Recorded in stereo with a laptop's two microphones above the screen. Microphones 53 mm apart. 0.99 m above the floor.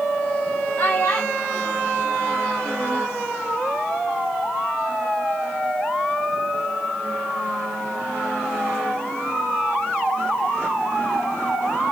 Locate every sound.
0.8 s a child speaking: 55° left (ahead or behind), 3.5 m; by 3.0 s 35° left (ahead or behind), 1.8 m